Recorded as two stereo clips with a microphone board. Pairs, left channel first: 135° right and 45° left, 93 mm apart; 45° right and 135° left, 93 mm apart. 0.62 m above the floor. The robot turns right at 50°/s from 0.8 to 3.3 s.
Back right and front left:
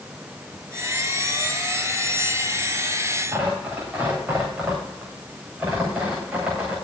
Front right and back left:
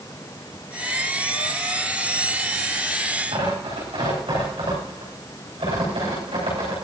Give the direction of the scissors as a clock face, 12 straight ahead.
No scissors in this recording.